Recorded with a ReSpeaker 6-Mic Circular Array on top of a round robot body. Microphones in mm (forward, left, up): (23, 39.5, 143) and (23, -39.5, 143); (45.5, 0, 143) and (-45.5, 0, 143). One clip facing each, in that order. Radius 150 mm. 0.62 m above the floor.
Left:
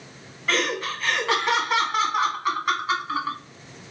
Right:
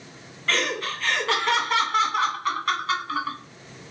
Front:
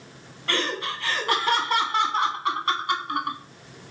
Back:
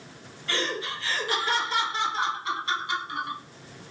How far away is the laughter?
About 1.5 m.